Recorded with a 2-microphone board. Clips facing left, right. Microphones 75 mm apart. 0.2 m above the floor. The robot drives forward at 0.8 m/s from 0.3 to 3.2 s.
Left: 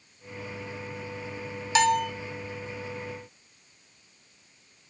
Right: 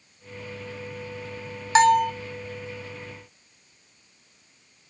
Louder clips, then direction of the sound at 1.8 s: Right 6 dB; 35° right (ahead or behind).